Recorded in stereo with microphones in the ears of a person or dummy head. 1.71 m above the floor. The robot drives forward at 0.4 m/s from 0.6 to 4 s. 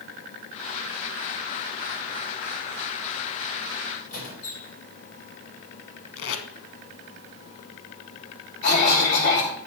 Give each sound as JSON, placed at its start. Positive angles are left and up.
{"t": 4.1, "sound": "a squeak", "side_deg": 50, "distance_m": 3.0}
{"t": 6.2, "sound": "tape being pulled", "side_deg": 75, "distance_m": 1.2}
{"t": 8.6, "sound": "a cough", "side_deg": 50, "distance_m": 3.0}